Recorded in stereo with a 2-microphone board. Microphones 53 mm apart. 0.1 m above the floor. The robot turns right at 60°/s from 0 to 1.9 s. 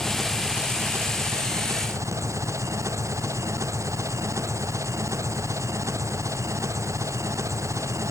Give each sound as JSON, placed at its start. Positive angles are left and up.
{"t": 0.0, "sound": "an engine running", "azimuth_deg": 165}